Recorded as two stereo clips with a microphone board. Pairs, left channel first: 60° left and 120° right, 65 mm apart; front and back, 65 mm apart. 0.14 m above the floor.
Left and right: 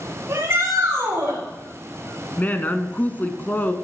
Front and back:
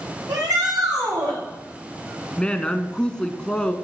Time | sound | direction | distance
0.3 | a shout | 170° right | 8 m
2.4 | a woman speaking | 60° left | 1.3 m